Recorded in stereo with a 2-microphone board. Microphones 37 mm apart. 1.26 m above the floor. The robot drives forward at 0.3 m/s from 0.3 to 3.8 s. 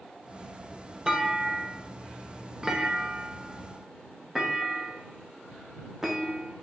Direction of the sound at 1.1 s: 20° right (ahead or behind).